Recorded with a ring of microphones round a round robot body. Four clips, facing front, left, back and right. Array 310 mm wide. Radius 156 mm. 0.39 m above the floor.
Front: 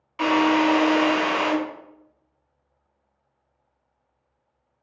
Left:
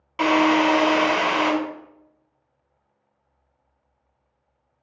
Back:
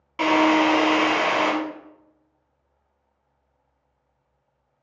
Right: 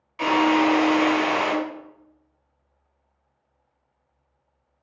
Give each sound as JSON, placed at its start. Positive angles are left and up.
{"t": 0.2, "sound": "a drill", "azimuth_deg": 120, "distance_m": 3.0}